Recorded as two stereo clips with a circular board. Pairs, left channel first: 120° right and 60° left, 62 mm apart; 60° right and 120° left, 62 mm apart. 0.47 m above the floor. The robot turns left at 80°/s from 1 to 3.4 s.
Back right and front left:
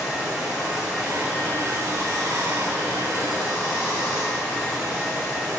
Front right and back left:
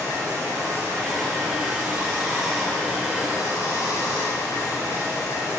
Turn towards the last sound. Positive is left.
turn(degrees=-45)